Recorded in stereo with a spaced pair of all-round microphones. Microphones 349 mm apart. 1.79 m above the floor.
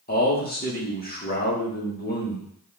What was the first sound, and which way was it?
A man speaking, 25° left (ahead or behind).